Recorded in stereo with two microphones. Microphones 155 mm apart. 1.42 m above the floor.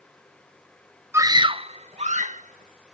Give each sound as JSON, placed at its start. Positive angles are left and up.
{"t": 1.1, "sound": "a scream", "side_deg": -15}